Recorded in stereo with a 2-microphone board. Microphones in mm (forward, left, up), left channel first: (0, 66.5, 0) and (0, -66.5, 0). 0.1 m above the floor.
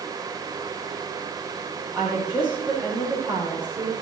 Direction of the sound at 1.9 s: 10° right (ahead or behind).